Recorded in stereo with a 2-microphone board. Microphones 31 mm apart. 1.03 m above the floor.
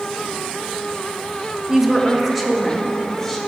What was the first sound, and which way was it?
A woman speaking, 10° right (ahead or behind).